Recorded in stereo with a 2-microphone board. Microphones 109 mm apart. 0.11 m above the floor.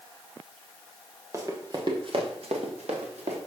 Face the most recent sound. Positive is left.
turn(degrees=-85)